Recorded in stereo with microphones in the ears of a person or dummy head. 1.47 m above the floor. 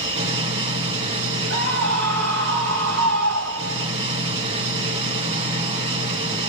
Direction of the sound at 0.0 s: 30° right (ahead or behind).